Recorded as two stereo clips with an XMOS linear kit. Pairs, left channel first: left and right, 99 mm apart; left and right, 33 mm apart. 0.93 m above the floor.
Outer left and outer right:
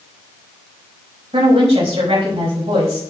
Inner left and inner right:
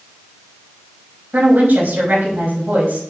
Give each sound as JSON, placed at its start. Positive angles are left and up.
{"t": 1.3, "sound": "a woman speaking", "side_deg": -85, "distance_m": 5.5}